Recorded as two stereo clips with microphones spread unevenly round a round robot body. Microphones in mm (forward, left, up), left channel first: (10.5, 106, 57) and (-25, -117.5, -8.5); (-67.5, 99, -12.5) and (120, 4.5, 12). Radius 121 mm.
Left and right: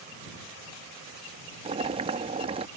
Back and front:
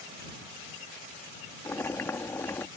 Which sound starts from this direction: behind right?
Boiling, at 1.6 s.